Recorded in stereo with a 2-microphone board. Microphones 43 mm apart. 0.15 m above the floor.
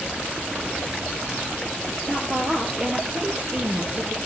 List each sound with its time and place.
2.1 s a woman speaking: 25° right (ahead or behind), 5 m